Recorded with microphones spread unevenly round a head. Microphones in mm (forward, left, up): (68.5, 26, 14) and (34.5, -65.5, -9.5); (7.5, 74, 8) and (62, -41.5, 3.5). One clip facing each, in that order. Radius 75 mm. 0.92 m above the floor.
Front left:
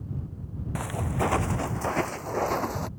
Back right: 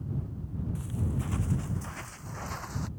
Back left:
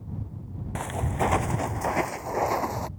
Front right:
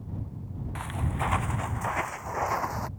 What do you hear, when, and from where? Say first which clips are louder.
0.8 s footsteps: front left 9 dB, back left 6 dB; 75° left; by 2.9 s 50° left